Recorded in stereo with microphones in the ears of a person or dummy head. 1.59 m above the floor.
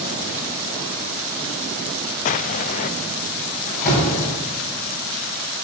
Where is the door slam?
40° left (ahead or behind), 8.5 m.